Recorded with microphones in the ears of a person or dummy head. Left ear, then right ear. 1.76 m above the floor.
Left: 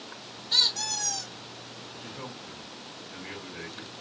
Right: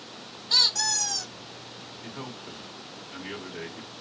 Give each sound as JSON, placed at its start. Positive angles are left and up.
{"t": 0.5, "sound": "a squeak", "side_deg": -45, "distance_m": 1.6}
{"t": 2.0, "sound": "a man speaking", "side_deg": -50, "distance_m": 1.0}